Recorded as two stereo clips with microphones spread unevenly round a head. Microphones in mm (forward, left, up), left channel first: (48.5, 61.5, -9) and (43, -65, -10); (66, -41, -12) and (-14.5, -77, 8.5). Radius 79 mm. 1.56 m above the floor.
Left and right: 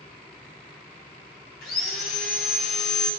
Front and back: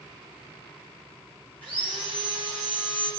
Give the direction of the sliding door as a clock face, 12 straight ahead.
I don't hear a sliding door.